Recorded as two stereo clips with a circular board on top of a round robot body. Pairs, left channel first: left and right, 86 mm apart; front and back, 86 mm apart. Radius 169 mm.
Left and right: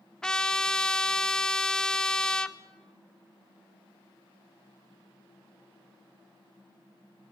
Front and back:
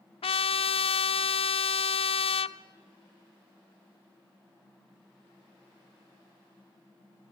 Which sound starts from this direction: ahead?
A trumpet, at 0.2 s.